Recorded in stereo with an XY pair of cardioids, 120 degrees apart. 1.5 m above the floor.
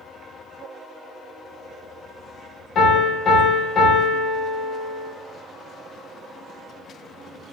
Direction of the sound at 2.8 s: 55° left.